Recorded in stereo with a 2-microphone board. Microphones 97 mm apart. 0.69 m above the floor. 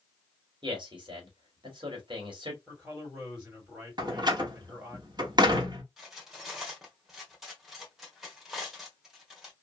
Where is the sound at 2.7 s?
15° right (ahead or behind), 2 m.